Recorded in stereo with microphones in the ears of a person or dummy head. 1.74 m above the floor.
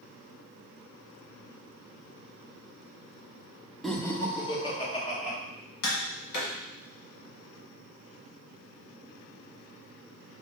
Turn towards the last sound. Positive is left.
turn(degrees=70)  # may be behind; listen again after turning